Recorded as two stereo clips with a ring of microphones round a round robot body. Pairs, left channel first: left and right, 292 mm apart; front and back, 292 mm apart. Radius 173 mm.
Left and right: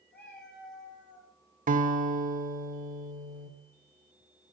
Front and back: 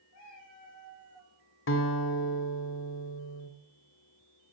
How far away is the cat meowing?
About 8.5 m.